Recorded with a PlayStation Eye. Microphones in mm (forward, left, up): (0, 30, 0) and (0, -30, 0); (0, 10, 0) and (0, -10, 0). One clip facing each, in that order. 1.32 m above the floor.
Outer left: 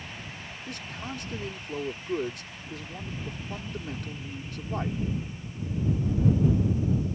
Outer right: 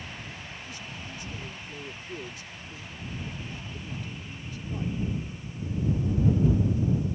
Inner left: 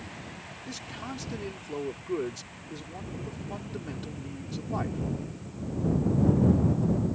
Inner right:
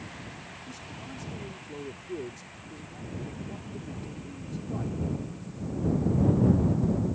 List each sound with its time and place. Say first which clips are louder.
0.7 s a man speaking: outer left 3 dB, inner left 7 dB; 60° left (ahead or behind)